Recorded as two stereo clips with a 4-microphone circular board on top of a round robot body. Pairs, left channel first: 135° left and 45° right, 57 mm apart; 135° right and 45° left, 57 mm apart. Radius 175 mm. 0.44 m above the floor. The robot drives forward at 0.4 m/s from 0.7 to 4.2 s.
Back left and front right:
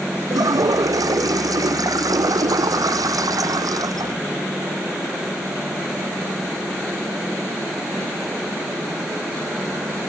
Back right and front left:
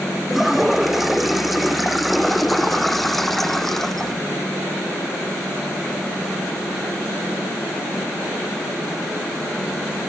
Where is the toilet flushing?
45° right; by 4.2 s 50° right.